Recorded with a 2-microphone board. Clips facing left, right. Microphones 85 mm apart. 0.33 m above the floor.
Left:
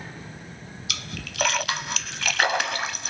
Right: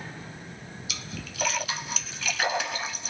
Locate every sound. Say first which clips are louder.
0.9 s a splash: left 4 dB; 70° left (ahead or behind), 0.6 m